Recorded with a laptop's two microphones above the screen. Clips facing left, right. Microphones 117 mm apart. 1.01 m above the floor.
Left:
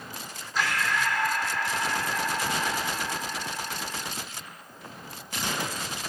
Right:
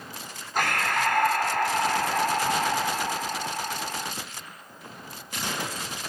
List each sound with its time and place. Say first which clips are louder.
0.6 s breathing: right 2 dB; 50° right (ahead or behind), 1.1 m